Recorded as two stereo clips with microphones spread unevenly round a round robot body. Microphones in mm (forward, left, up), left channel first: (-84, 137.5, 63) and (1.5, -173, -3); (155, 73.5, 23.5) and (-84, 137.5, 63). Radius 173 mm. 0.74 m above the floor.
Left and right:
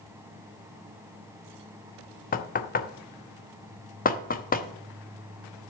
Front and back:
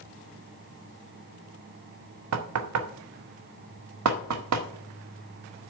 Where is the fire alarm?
No fire alarm in this recording.